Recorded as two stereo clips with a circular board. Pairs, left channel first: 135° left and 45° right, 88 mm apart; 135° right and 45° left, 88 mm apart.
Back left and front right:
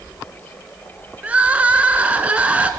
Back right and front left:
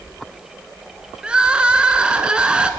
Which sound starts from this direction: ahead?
Crying, at 1.2 s.